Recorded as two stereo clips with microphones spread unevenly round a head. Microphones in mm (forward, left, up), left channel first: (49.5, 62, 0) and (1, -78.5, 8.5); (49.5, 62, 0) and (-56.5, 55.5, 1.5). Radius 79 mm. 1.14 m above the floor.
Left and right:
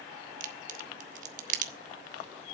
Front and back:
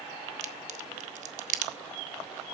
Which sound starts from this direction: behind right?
A crack, at 0.4 s.